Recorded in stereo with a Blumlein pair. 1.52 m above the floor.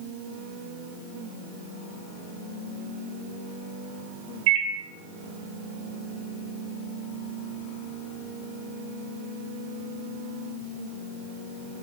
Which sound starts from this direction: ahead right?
A microwave, at 4.5 s.